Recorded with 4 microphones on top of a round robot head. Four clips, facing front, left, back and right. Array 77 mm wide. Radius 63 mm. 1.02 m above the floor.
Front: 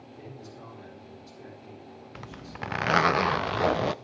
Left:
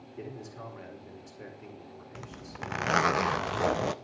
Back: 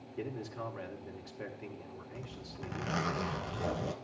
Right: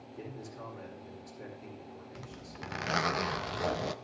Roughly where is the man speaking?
Behind.